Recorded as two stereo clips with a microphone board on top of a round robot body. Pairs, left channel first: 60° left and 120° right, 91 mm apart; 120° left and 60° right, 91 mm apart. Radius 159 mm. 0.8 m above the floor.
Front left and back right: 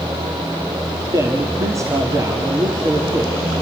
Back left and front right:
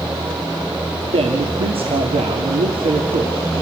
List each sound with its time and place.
1.1 s a man speaking: 65° right, 1.9 m